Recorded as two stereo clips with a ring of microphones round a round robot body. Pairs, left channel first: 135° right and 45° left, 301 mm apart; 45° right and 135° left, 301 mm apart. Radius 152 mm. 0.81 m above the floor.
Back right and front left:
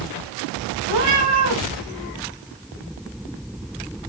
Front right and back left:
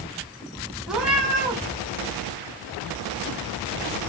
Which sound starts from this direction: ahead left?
A cat meowing, at 0.9 s.